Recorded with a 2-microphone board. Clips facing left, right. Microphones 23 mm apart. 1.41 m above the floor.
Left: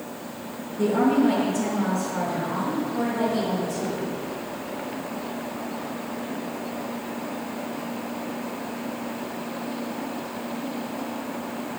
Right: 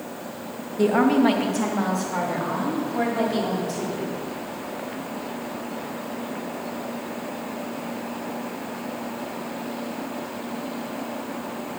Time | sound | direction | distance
0.8 | a woman speaking | 70° right (ahead or behind) | 1.4 m